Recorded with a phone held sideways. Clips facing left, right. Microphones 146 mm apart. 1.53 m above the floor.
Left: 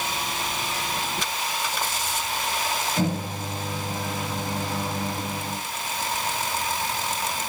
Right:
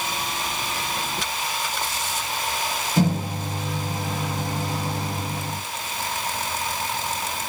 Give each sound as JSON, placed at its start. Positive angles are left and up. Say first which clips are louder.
{"t": 3.0, "sound": "a microwave", "louder": "right 8 dB", "side_deg": -35, "distance_m": 5.5}